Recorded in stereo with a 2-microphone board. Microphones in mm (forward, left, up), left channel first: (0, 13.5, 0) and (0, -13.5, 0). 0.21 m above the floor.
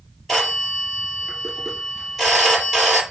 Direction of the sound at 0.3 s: Centre (ahead or behind).